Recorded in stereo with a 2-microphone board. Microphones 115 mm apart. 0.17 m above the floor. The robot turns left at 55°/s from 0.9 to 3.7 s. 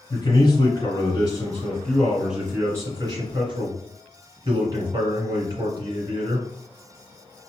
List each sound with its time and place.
0.1 s a man speaking: 65° left, 1.8 m; by 6.5 s 90° right, 1.8 m